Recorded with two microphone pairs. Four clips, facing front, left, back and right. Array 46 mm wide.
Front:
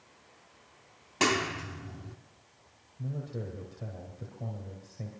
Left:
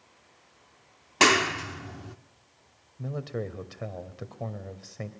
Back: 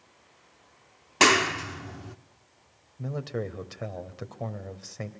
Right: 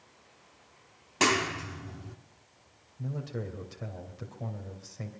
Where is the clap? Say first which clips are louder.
Left 5 dB, back 7 dB; 130° left, 1.1 m.